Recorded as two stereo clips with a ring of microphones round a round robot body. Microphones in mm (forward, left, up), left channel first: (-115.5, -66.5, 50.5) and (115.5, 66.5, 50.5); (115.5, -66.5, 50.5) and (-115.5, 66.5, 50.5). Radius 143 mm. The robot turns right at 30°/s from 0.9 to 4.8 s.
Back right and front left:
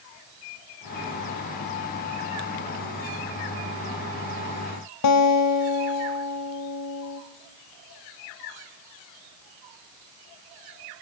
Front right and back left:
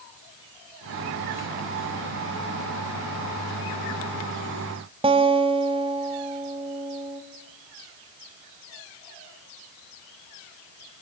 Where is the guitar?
140° right, 1.9 m.